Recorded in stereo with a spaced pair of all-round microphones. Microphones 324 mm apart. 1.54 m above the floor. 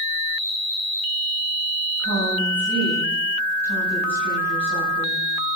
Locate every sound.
2.0 s a woman speaking: 65° left (ahead or behind), 6.5 m